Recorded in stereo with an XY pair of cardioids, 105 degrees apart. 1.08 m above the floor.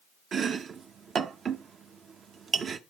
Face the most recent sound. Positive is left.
turn(degrees=-50)